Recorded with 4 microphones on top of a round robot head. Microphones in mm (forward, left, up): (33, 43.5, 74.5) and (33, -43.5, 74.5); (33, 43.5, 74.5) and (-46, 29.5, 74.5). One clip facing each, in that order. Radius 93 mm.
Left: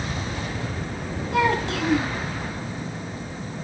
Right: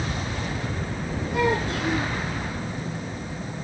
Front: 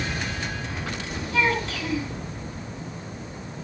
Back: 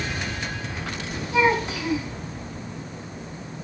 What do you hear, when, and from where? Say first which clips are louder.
1.3 s a child speaking: left 2 dB, back 4 dB; 115° left, 5.5 m